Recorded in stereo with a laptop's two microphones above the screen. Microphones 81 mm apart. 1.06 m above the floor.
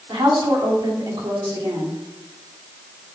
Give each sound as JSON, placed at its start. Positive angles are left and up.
{"t": 0.1, "sound": "a woman speaking", "side_deg": -75, "distance_m": 3.0}